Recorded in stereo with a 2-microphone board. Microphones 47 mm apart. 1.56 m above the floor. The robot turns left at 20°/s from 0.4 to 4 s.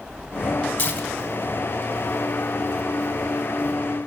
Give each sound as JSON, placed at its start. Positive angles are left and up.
{"t": 0.8, "sound": "tearing paper", "side_deg": 35, "distance_m": 3.0}